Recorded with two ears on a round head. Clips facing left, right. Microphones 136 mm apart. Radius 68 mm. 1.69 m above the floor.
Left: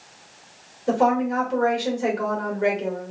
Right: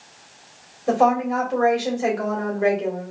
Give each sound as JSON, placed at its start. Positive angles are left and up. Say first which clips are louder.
{"t": 0.9, "sound": "a woman speaking", "louder": "right 2 dB", "side_deg": -5, "distance_m": 2.0}